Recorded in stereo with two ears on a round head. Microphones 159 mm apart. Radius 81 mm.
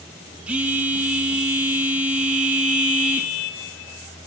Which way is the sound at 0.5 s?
10° right (ahead or behind).